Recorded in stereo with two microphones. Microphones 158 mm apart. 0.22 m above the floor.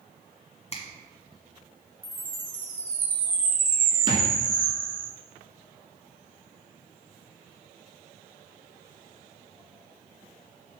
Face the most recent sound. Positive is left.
turn(degrees=-30)  # may be behind; listen again after turning